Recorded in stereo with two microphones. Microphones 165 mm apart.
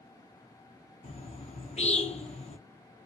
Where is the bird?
45° left (ahead or behind), 0.7 m.